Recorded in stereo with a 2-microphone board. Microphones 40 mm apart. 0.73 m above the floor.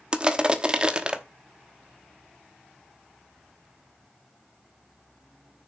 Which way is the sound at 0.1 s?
25° right (ahead or behind).